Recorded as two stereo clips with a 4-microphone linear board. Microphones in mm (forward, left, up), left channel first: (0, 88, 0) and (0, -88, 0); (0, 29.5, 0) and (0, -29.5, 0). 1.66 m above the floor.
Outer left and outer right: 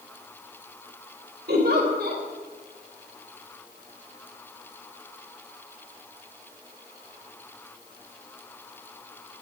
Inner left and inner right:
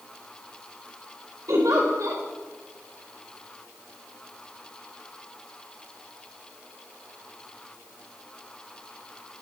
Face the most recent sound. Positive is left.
turn(degrees=-60)  # may be behind; listen again after turning